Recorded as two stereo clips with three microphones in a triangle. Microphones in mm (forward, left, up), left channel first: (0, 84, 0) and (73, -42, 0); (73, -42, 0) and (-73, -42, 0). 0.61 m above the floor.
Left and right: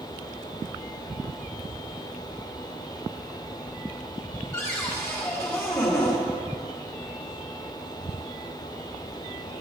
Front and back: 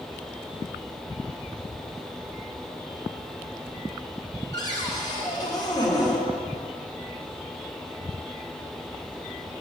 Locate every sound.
4.5 s a cupboard door: 50° left, 1.6 m